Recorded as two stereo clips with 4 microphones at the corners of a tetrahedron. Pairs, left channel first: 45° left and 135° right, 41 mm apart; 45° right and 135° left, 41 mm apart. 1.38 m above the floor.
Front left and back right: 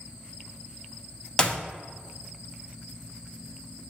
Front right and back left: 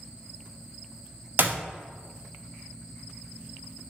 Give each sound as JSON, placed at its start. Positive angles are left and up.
{"t": 1.4, "sound": "a clap", "azimuth_deg": 115, "distance_m": 0.8}